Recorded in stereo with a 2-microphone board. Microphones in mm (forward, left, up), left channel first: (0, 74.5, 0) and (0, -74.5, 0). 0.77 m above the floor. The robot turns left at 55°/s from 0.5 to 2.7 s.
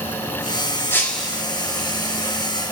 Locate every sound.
0.9 s breaking glass: 15° left (ahead or behind), 3.5 m; by 1.4 s 10° right (ahead or behind), 3.5 m